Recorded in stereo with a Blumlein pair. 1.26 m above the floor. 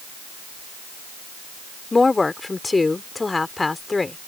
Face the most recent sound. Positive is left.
turn(degrees=10)